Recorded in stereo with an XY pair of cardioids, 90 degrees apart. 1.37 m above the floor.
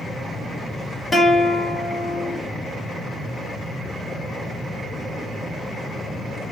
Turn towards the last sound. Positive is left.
turn(degrees=15)